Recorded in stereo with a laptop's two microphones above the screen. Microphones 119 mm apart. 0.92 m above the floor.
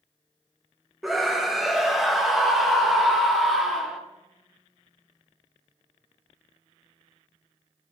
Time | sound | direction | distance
1.0 | a scream | centre (ahead or behind) | 1.1 m